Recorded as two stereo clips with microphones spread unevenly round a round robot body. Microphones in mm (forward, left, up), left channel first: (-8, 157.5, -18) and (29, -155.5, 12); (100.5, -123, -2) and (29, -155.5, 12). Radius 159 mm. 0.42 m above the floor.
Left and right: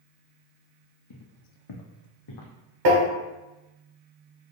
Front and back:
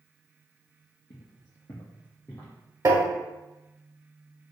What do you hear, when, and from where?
1.1 s footsteps: 65° left, 0.8 m; by 2.5 s 110° left, 1.1 m
2.9 s tapping: 110° right, 1.3 m